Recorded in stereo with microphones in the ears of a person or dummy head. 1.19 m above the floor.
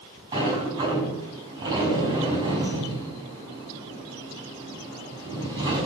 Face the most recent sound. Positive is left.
turn(degrees=-25)  # may be behind; listen again after turning